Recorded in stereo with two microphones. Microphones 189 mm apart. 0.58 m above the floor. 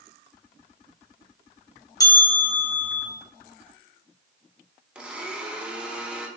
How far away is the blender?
About 0.6 m.